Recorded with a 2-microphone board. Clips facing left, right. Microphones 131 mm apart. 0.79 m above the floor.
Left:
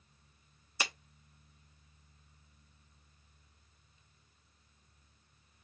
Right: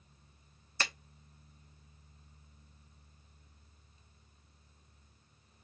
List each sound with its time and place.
0.8 s a clap: 10° left (ahead or behind), 0.7 m